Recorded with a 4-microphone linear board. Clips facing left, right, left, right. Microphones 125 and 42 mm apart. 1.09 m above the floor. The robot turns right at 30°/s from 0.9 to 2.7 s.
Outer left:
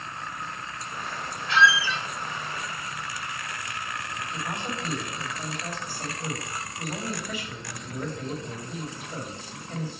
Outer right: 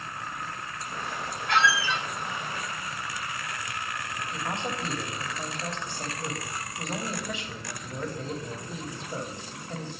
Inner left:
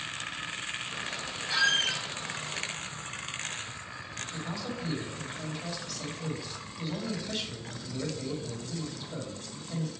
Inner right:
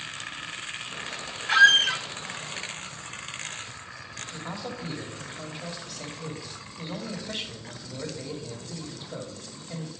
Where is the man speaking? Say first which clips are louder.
Outer right 1 dB, inner right 1 dB; 25° right (ahead or behind), 2.0 m.